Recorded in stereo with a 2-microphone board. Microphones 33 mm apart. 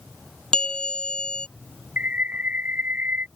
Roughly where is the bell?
Left.